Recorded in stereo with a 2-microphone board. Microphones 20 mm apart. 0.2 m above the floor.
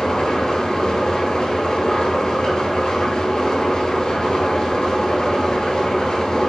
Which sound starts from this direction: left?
An engine running, at 0.0 s.